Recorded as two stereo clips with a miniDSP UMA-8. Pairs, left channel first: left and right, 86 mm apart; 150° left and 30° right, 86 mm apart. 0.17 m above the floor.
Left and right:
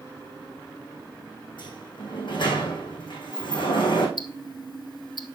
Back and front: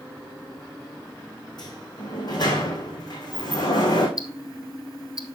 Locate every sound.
1.6 s a sliding door: 115° left, 3 m
4.2 s ticking: 115° left, 1.1 m